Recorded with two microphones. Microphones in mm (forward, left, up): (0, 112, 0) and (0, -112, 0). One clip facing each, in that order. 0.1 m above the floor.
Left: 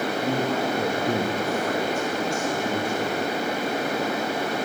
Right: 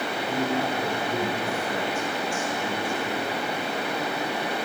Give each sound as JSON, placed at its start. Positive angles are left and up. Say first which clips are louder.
{"t": 0.2, "sound": "a man speaking", "louder": "even", "side_deg": 70, "distance_m": 5.0}